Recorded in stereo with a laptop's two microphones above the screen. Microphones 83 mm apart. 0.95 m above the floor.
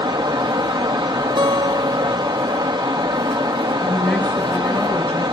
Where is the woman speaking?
15° left (ahead or behind), 5 m.